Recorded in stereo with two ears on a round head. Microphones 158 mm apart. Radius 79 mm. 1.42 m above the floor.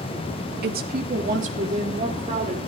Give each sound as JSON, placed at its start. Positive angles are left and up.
{"t": 0.6, "sound": "a woman speaking", "side_deg": -60, "distance_m": 1.9}